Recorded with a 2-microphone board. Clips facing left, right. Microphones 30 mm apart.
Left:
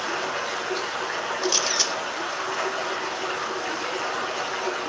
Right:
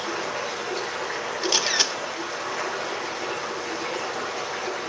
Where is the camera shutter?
25° right (ahead or behind), 0.8 m.